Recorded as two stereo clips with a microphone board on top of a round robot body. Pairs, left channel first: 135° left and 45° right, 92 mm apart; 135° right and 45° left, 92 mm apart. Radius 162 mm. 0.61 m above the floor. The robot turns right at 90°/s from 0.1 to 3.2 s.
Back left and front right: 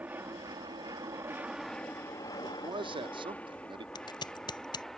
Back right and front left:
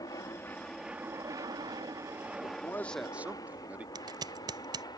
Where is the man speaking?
100° right; by 3.9 s 30° right.